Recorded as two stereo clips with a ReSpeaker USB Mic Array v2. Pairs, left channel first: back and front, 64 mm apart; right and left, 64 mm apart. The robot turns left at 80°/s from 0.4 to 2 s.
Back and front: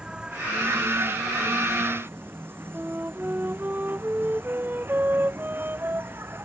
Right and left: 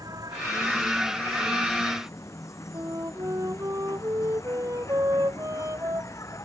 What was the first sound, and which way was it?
An insect, 75° left.